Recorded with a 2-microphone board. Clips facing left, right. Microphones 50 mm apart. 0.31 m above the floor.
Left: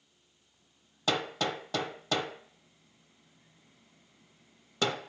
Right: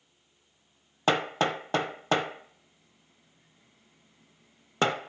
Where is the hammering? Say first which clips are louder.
Right 5 dB; 40° right (ahead or behind), 0.8 m.